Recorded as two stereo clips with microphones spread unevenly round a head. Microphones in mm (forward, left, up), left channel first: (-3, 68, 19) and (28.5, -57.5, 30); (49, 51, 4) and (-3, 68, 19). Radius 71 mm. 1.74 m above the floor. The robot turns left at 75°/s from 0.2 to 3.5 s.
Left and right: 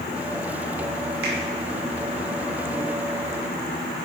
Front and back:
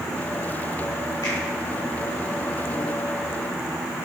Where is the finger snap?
85° right, 2.5 m; by 1.4 s 95° right, 2.5 m.